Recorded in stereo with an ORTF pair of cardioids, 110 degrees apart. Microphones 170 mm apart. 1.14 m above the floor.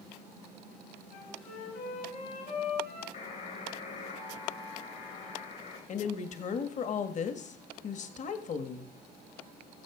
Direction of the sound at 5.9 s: 45° left.